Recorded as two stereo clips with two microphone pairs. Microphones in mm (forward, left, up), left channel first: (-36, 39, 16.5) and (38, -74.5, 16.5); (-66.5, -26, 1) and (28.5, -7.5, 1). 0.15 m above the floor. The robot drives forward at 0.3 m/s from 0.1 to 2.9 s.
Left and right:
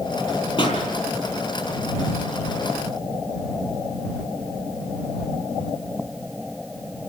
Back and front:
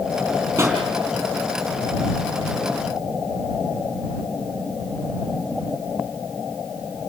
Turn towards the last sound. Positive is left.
turn(degrees=85)